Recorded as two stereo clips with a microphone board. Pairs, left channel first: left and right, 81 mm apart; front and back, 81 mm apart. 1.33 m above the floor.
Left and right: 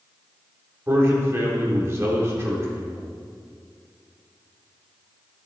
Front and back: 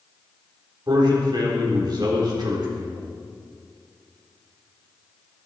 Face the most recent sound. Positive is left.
turn(degrees=-145)